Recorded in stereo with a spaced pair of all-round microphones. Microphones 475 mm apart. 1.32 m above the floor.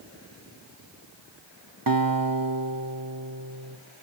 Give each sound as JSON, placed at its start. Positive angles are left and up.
{"t": 1.9, "sound": "a guitar", "side_deg": -45, "distance_m": 1.0}